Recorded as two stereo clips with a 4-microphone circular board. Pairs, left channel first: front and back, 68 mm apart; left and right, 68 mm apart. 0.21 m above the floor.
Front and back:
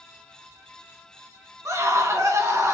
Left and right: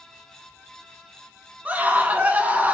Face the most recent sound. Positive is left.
turn(degrees=-150)